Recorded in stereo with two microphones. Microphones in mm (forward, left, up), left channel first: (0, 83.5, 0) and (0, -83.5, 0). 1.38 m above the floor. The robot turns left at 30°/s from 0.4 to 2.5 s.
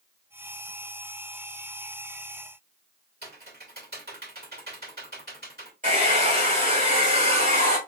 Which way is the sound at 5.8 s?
50° right (ahead or behind).